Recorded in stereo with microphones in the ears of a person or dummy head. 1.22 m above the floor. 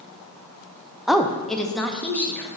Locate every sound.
1.1 s a woman speaking: centre (ahead or behind), 0.7 m; by 2.5 s 10° left (ahead or behind), 1.6 m